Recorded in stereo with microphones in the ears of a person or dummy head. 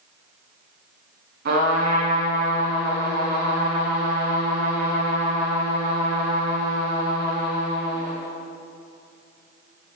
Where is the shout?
No shout in this recording.